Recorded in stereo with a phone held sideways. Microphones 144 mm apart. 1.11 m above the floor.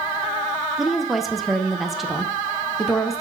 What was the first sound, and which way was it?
A woman speaking, centre (ahead or behind).